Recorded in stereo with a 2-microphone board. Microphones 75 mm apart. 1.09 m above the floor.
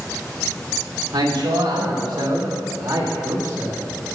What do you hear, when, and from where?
1.1 s a man speaking: 80° right, 2.5 m; by 4.2 s 30° right (ahead or behind), 2.0 m